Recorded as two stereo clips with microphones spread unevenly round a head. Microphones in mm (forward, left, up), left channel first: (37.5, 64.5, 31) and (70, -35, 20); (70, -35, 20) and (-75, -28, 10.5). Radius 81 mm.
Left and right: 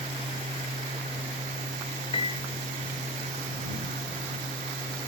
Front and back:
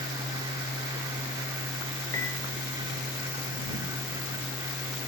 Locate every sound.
0.0 s a fan: 115° right
2.1 s a piano: 70° left